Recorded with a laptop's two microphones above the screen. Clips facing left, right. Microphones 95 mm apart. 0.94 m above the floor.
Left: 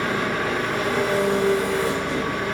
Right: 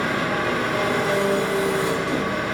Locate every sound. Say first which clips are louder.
0.0 s an engine running: right 1 dB; 75° right (ahead or behind), 0.7 m